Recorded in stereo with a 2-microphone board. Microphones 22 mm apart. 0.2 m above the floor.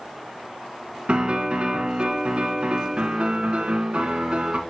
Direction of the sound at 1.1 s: 55° right (ahead or behind).